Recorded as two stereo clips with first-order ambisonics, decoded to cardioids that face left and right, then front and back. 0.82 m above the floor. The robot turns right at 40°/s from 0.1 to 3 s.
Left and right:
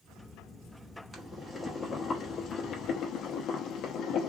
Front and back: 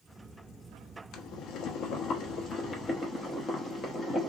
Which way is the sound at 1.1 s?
15° right.